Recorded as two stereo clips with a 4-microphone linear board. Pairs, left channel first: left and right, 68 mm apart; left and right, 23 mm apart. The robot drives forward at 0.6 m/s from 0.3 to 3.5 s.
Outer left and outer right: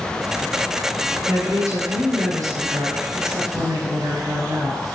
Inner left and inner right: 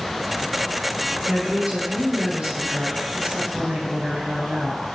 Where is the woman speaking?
55° right (ahead or behind), 3 m; by 4.8 s 65° right (ahead or behind), 2.5 m.